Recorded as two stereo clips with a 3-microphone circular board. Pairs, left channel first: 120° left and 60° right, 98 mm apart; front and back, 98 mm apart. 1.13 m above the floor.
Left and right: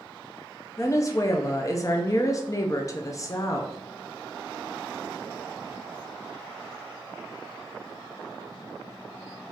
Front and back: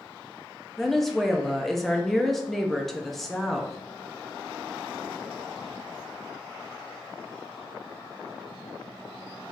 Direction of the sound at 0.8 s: 85° left.